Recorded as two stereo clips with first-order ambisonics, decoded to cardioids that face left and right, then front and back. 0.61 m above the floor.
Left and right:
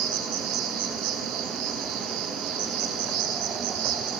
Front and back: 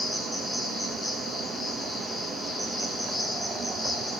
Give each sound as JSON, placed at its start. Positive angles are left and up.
{"t": 0.0, "sound": "an insect", "azimuth_deg": -90, "distance_m": 0.8}